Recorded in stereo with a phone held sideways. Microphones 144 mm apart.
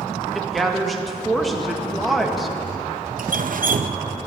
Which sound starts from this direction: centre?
A woman speaking, at 0.3 s.